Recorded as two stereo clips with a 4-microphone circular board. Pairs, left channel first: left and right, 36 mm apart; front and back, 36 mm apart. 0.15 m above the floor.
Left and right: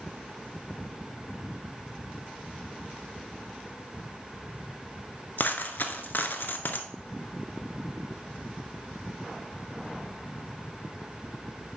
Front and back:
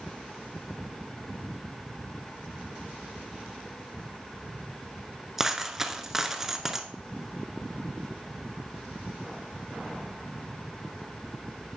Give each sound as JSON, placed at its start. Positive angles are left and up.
{"t": 5.4, "sound": "a dropped coin", "azimuth_deg": 100, "distance_m": 0.8}